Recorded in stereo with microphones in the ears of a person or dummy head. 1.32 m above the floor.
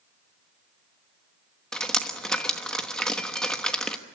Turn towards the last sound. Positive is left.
turn(degrees=5)  # may be behind; listen again after turning